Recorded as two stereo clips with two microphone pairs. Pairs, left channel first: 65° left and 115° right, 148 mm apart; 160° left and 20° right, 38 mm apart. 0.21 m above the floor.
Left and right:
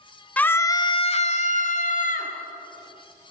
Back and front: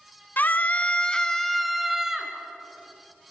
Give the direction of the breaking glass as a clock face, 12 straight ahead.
I don't hear breaking glass.